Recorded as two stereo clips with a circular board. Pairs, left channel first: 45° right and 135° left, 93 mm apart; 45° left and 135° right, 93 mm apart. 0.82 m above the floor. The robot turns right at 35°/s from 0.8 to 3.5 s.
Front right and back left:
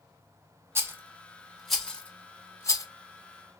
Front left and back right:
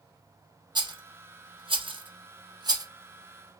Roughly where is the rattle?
Behind.